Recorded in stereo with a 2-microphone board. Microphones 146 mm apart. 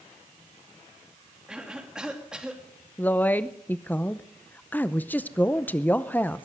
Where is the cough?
5° right (ahead or behind), 3 m.